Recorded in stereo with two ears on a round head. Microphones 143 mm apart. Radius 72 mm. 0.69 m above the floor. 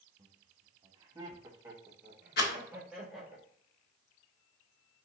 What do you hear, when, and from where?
0.2 s laughter: 25° right (ahead or behind), 1.4 m; by 3.4 s centre (ahead or behind), 1.5 m
2.4 s a rattle: 65° left (ahead or behind), 1.4 m